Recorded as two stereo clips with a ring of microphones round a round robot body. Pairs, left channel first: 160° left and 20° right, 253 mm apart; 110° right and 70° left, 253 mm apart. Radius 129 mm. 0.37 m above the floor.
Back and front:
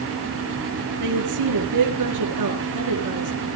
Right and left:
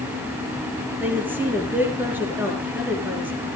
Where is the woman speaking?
15° right, 6.5 m.